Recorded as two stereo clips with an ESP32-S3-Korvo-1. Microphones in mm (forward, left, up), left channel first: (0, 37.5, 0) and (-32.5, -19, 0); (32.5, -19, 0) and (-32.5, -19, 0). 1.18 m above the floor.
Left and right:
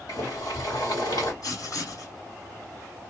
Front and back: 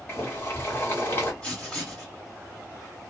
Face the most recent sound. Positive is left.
turn(degrees=80)